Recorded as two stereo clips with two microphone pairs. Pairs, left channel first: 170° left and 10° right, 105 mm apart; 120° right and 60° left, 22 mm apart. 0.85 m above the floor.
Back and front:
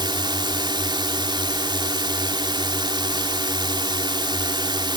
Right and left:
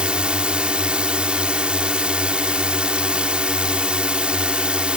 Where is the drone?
30° left.